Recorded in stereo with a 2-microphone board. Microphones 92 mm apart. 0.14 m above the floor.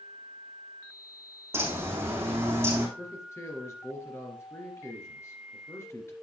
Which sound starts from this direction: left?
A man speaking, at 3.0 s.